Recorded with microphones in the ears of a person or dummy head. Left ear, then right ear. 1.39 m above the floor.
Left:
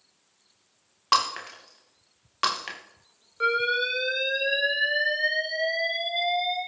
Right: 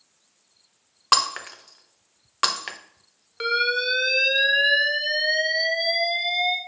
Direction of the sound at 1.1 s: 20° right (ahead or behind).